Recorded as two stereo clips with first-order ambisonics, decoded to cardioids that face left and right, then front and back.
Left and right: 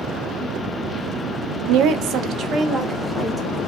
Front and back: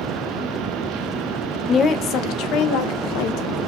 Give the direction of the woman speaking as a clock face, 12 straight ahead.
2 o'clock.